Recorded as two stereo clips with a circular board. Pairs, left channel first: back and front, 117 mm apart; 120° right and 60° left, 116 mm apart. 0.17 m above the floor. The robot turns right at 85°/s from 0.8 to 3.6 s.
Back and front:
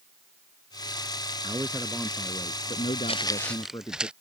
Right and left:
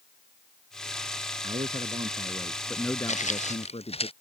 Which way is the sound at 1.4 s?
45° left.